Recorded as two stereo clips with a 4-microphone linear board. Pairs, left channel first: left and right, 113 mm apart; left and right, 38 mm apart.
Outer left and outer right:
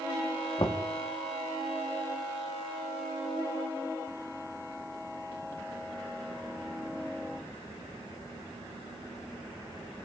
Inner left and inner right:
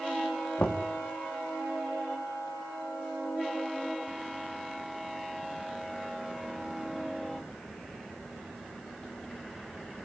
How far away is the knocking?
About 2 m.